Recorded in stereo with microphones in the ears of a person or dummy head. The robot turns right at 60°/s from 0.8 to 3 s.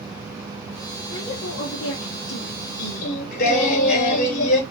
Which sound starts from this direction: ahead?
A woman speaking, at 1.1 s.